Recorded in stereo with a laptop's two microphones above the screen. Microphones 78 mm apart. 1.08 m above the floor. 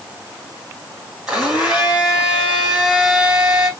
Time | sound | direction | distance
1.3 | a blender | 10° right (ahead or behind) | 1.7 m